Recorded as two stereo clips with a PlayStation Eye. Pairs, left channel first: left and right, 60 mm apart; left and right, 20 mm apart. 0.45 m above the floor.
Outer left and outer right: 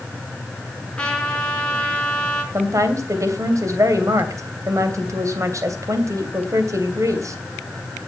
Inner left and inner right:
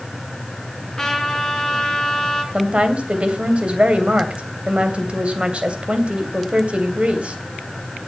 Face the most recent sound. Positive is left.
turn(degrees=-65)  # may be behind; listen again after turning